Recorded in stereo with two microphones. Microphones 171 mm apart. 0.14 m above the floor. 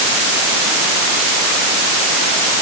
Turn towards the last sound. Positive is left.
No sound to turn to.